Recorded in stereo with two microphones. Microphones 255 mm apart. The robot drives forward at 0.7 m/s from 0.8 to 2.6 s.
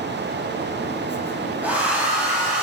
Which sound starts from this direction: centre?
A hair dryer, at 1.6 s.